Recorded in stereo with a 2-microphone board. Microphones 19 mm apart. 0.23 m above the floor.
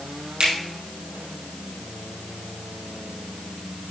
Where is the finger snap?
65° right (ahead or behind), 5.5 m.